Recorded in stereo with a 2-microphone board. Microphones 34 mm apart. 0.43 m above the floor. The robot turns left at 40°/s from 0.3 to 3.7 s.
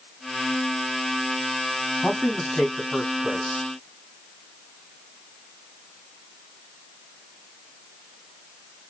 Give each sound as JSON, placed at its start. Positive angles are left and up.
{"t": 2.0, "sound": "a man speaking", "azimuth_deg": 40, "distance_m": 3.0}